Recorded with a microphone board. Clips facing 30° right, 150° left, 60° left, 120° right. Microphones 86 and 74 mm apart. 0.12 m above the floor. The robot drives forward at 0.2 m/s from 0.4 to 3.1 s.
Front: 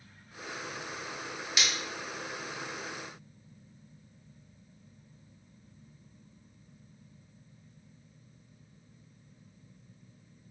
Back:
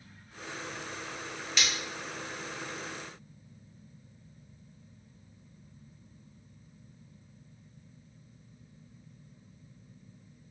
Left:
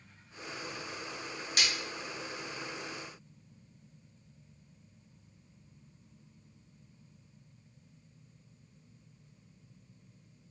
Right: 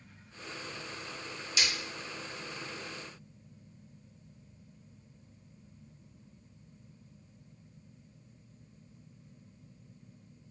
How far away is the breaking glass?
About 1.3 m.